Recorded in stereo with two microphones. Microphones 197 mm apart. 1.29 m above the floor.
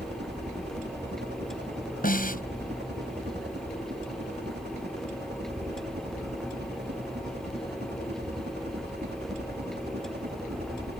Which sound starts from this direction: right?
A helicopter, at 0.0 s.